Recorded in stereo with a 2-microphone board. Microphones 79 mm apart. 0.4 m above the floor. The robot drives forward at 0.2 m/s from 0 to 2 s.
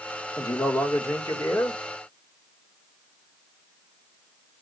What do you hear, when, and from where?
0.4 s a man speaking: 40° left (ahead or behind), 1.7 m